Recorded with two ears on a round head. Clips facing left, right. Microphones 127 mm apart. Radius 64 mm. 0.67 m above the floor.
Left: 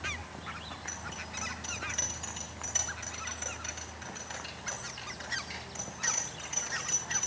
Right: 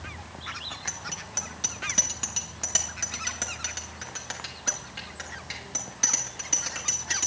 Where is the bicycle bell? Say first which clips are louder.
Right 2 dB; 70° right (ahead or behind), 4 m.